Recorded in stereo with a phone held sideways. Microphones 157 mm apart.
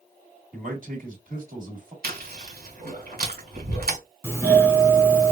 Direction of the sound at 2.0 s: 70° right (ahead or behind).